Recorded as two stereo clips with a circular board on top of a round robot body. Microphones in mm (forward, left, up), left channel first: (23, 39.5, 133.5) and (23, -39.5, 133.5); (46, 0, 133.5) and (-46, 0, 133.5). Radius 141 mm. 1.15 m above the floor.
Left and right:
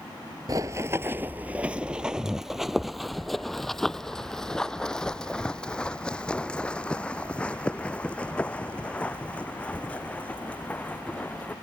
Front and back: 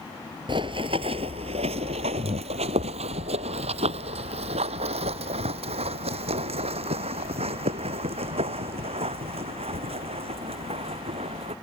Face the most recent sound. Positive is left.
turn(degrees=165)